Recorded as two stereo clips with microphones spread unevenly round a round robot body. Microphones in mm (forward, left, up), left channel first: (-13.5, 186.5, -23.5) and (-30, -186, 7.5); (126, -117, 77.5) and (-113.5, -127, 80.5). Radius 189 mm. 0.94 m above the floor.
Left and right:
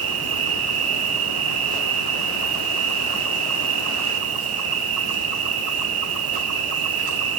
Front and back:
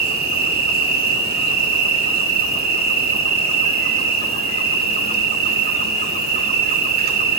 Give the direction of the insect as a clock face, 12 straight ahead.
4 o'clock.